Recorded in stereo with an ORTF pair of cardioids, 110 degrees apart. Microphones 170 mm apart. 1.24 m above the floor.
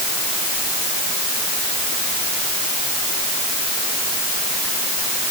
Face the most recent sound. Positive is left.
No sound to turn to.